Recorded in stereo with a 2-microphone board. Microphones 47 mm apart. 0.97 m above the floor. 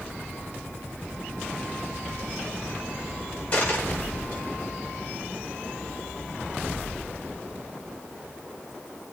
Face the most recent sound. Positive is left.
turn(degrees=25)  # may be behind; listen again after turning